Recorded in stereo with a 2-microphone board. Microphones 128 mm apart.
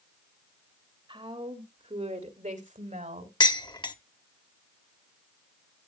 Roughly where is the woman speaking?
Right.